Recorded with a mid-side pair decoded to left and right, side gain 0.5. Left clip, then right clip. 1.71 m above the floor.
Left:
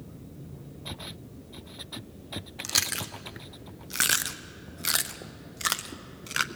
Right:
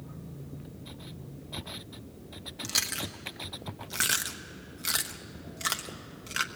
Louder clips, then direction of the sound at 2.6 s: Left 2 dB; 25° left.